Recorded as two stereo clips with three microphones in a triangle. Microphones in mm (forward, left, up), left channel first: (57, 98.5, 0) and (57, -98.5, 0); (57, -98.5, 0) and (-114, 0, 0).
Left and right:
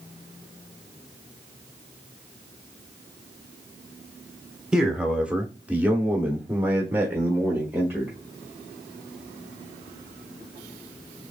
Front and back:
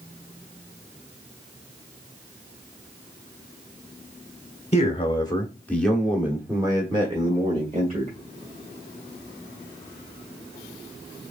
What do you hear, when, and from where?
4.7 s a man speaking: 5° right, 1.4 m; by 8.2 s 170° right, 2 m